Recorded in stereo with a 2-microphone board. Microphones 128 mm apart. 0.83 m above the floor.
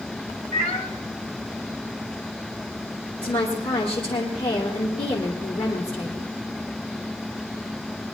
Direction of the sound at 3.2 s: 45° left (ahead or behind).